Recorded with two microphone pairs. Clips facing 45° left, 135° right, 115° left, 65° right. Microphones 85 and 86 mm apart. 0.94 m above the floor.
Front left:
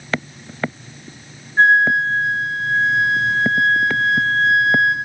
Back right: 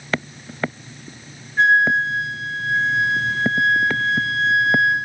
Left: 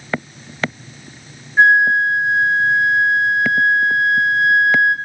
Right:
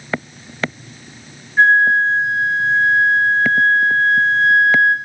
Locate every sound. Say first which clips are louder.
1.6 s a flute: front left 2 dB, even; 55° left, 1.0 m